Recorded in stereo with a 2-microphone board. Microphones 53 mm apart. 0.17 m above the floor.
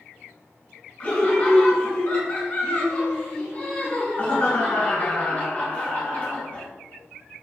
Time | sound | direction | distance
1.0 | laughter | 30° left (ahead or behind) | 1.7 m